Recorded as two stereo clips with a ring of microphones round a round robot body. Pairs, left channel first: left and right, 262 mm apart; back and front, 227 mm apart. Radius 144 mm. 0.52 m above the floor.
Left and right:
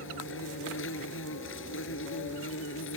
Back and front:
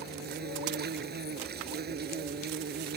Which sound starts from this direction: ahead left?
An insect, at 0.0 s.